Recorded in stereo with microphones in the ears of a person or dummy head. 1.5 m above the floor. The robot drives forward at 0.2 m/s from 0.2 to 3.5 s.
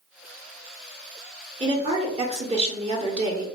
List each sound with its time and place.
1.6 s a woman speaking: 25° right (ahead or behind), 0.8 m; by 3.5 s 40° right (ahead or behind), 0.5 m